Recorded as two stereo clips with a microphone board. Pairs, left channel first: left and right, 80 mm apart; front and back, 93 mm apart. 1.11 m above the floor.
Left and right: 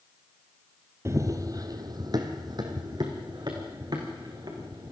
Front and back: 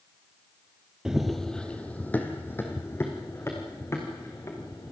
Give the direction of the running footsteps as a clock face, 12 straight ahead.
3 o'clock.